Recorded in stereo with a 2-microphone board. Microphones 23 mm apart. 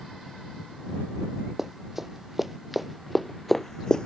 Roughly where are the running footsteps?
Centre.